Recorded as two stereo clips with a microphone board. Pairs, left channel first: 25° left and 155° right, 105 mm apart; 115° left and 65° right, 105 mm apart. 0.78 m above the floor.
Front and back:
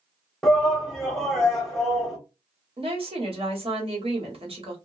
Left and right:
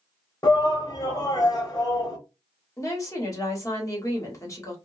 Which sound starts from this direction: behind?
A woman speaking, at 2.8 s.